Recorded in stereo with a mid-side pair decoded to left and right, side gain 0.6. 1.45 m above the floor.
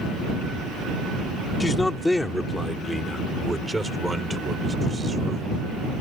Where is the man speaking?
20° left; by 5.6 s 20° right.